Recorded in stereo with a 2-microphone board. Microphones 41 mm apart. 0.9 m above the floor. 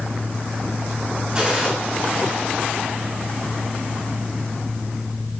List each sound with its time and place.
1.4 s a gunshot: 20° right (ahead or behind), 5 m